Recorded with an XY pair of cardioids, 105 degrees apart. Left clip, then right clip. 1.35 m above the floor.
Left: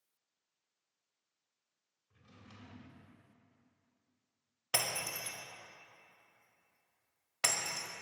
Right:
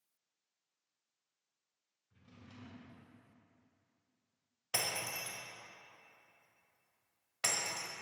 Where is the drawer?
65° left, 2.5 m.